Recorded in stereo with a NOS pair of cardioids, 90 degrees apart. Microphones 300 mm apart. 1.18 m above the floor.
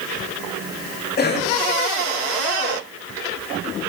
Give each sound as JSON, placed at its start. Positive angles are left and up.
{"t": 1.2, "sound": "a cough", "azimuth_deg": 30, "distance_m": 8.5}